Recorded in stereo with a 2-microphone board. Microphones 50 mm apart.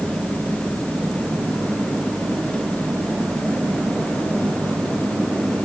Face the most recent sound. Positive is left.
No sound to turn to.